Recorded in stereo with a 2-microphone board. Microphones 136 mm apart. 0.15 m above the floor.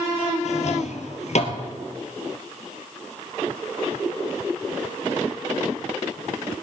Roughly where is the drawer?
Left.